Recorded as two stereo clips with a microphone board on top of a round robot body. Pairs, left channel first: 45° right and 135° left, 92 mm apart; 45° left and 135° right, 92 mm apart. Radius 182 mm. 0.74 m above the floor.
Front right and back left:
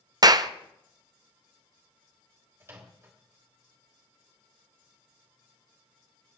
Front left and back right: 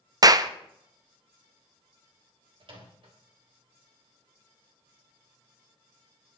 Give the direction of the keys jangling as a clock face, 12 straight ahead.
No keys jangling in this recording.